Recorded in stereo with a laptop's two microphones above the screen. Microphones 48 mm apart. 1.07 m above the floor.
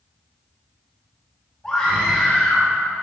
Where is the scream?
15° left (ahead or behind), 2.5 m; by 2.7 s 20° left (ahead or behind), 2.0 m.